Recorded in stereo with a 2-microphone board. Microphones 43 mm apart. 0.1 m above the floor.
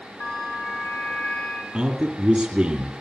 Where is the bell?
60° left (ahead or behind), 4 m.